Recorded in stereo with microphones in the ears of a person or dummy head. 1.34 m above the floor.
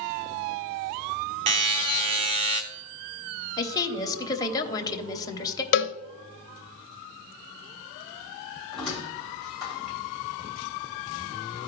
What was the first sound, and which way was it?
A buzzer, 30° right (ahead or behind).